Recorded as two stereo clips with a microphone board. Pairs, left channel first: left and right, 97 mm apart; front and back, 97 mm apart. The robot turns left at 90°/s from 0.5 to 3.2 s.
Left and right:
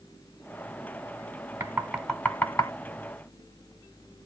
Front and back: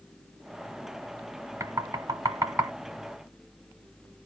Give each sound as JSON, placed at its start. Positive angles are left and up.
{"t": 1.6, "sound": "knocking", "azimuth_deg": -140, "distance_m": 1.3}